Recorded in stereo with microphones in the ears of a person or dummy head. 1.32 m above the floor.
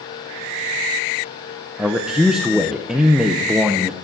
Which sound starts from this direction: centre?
A man speaking, at 1.8 s.